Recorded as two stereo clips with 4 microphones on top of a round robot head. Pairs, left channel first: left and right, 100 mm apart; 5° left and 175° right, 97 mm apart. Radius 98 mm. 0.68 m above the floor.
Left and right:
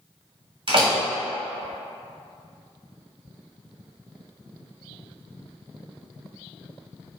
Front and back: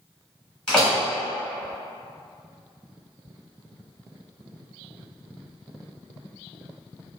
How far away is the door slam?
About 1.2 m.